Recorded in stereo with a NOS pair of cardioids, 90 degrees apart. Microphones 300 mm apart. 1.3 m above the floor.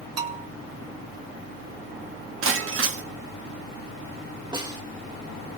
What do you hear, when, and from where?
0.2 s a bell: 55° right, 2.5 m
2.4 s breaking glass: 45° right, 1.4 m
4.5 s a snare drum: 15° right, 2 m